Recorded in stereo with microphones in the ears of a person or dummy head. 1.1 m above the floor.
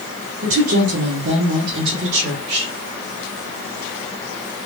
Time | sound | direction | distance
0.4 | a woman speaking | 55° right (ahead or behind) | 0.8 m